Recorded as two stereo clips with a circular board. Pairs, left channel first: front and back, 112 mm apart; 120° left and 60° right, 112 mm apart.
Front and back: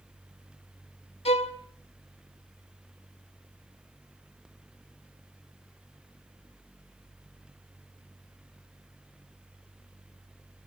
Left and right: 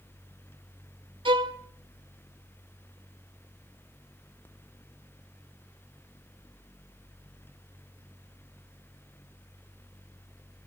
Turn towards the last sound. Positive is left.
turn(degrees=-20)